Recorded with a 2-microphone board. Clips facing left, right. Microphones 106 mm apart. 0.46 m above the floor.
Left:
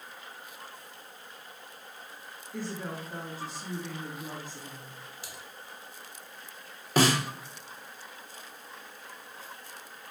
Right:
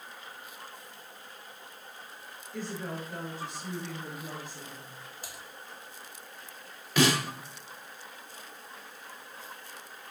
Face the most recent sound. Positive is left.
turn(degrees=35)  # may be behind; listen again after turning